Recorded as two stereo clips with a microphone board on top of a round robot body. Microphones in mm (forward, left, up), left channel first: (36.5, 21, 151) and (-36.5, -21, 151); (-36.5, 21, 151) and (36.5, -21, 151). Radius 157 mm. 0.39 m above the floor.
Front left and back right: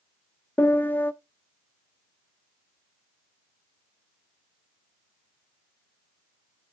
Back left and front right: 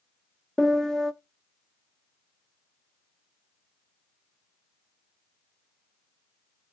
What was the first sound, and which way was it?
A piano, 75° left.